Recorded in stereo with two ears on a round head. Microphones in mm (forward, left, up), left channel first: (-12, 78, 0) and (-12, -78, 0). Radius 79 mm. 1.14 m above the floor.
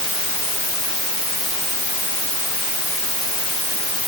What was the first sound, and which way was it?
Only background noise.